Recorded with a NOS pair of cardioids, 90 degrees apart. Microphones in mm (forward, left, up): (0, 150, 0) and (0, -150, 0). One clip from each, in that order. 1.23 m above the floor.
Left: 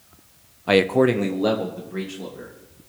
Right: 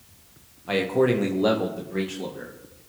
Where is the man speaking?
50° left, 0.6 m; by 2.5 s 15° right, 2 m.